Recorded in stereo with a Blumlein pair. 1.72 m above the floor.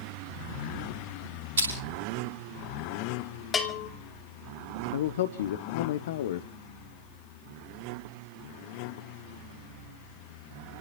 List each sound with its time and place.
1.6 s crushing: 65° right, 8.5 m
3.5 s a bell: 20° left, 2 m
4.9 s a man speaking: 60° left, 1.1 m